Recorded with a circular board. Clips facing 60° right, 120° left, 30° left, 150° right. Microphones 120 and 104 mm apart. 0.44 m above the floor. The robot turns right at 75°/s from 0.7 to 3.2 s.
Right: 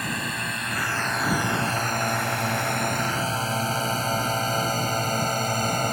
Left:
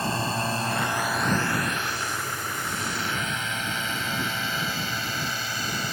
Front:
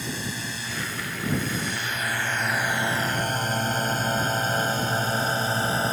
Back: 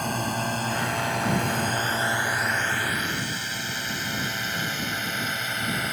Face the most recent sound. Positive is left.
turn(degrees=-25)